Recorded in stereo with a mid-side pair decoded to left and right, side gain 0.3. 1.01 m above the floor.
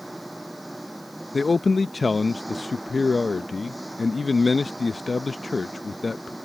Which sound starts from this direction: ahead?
An engine running, at 0.0 s.